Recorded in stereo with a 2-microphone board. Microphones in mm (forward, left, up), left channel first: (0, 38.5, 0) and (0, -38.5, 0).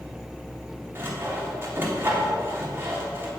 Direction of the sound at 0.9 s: 30° right (ahead or behind).